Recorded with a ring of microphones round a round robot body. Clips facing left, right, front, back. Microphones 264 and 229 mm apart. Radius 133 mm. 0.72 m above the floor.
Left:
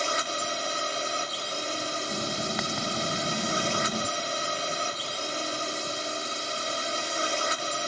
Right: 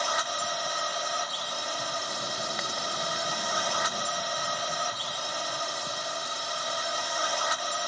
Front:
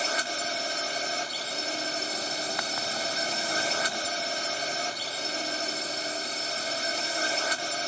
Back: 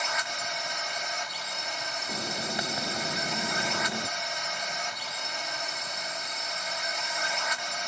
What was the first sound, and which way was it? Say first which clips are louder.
A drone: left 2 dB, front 4 dB; 40° left.